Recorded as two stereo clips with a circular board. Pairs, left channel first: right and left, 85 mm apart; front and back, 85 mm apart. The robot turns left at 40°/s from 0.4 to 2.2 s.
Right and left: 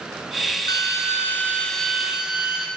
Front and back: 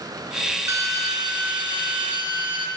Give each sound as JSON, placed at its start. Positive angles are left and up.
{"t": 0.7, "sound": "a drill", "azimuth_deg": -130, "distance_m": 2.0}